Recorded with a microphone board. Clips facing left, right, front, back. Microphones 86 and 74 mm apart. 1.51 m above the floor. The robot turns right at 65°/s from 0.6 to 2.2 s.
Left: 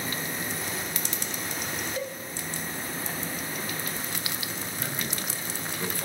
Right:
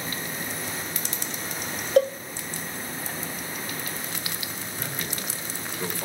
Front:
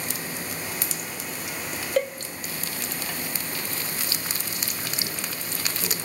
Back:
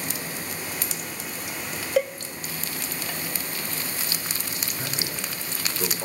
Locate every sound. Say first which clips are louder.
2.0 s a cowbell: right 17 dB, back 1 dB; 95° right, 0.6 m; by 2.1 s 85° right, 0.6 m
4.8 s a man speaking: right 1 dB, back 2 dB; 160° right, 7.5 m